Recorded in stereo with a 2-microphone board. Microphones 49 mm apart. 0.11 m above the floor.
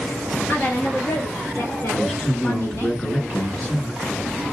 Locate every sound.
0.5 s a woman speaking: 50° left (ahead or behind), 1.6 m; by 2.9 s 60° left (ahead or behind), 3.5 m
1.9 s a man speaking: 15° left (ahead or behind), 1.2 m